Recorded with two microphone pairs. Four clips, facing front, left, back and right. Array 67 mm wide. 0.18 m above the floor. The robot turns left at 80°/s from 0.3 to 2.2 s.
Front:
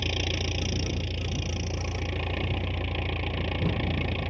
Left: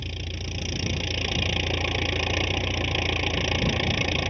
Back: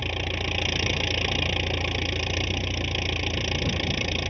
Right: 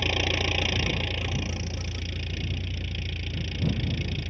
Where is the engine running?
115° right; by 4.3 s 95° left.